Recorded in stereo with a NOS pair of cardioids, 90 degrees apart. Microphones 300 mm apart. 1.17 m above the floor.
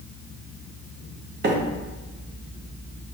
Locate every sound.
1.4 s a microwave: 35° right, 0.8 m